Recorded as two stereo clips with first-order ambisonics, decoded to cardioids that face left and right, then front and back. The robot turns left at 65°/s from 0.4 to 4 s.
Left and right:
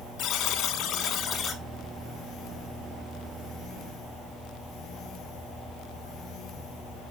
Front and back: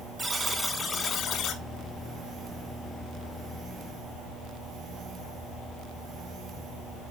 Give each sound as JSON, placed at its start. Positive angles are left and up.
{"t": 0.2, "sound": "a buzzer", "azimuth_deg": 100, "distance_m": 1.4}